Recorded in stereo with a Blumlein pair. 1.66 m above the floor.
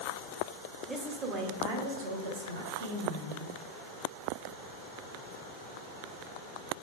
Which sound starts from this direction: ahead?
A woman speaking, at 0.9 s.